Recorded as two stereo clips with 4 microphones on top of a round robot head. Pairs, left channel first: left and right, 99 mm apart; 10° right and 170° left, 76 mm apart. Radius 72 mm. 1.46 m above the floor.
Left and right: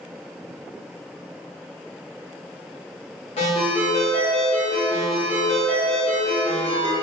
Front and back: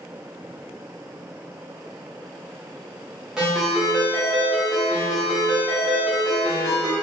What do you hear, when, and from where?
3.4 s a ringtone: 90° left, 0.9 m